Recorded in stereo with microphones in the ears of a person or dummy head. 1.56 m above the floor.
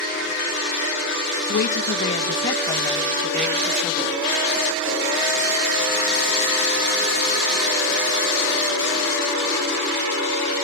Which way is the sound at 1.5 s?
55° left (ahead or behind).